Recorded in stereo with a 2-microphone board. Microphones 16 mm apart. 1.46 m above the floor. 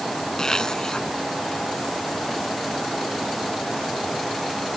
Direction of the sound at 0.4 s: 40° left (ahead or behind).